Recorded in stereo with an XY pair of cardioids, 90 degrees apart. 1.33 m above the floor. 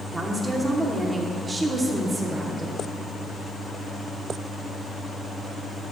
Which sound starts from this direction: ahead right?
A woman speaking, at 0.1 s.